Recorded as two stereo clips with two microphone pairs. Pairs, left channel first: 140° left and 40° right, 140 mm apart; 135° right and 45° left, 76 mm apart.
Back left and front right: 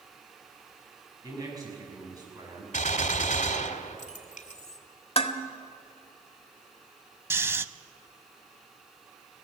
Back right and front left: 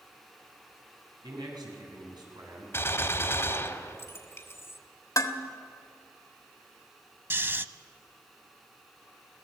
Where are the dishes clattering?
175° right, 1.4 m.